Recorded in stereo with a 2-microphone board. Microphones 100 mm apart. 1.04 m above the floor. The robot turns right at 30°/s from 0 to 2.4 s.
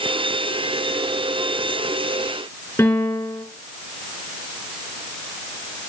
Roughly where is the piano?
Left.